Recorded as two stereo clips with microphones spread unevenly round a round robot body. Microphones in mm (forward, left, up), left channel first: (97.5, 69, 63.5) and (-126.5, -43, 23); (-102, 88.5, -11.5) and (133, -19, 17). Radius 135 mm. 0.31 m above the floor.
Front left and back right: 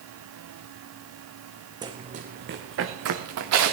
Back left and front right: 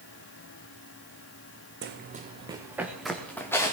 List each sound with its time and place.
1.8 s running footsteps: 75° right, 1.4 m; by 3.7 s 125° right, 2.5 m